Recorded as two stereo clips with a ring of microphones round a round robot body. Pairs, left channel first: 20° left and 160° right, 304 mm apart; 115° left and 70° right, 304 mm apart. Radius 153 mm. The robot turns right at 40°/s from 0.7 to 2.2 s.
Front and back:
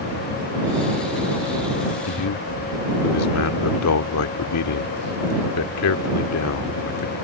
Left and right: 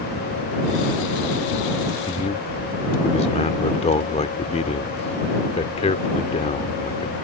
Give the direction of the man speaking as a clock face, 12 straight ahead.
11 o'clock.